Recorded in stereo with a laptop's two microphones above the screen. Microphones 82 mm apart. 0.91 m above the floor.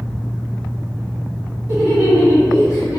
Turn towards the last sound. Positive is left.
turn(degrees=45)  # may be behind; listen again after turning